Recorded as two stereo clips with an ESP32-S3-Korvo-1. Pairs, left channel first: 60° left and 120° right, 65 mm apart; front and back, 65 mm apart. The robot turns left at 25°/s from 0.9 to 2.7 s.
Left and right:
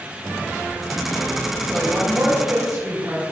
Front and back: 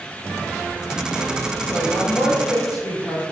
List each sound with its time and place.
1.6 s a woman speaking: 35° right, 3 m; by 3.2 s 65° right, 3 m